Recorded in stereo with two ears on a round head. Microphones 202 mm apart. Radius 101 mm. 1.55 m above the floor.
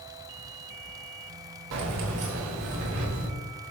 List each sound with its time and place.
1.7 s keys jangling: 75° right (ahead or behind), 1.6 m; by 3.3 s 70° right (ahead or behind), 3 m